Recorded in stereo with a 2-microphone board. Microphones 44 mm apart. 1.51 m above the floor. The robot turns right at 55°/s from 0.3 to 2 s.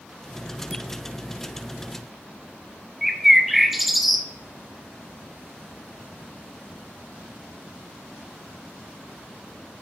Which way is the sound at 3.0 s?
5° right (ahead or behind).